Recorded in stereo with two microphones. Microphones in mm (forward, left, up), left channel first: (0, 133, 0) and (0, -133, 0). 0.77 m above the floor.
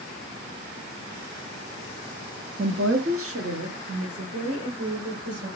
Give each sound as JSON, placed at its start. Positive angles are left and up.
{"t": 2.6, "sound": "a woman speaking", "side_deg": -40, "distance_m": 0.7}